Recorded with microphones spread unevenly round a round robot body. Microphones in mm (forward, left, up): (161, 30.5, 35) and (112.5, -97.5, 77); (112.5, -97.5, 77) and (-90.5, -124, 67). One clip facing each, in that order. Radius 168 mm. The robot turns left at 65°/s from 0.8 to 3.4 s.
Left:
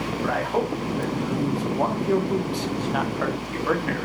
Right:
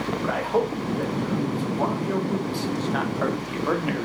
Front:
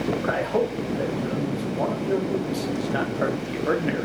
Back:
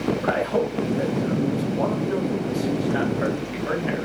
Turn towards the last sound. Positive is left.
turn(degrees=-20)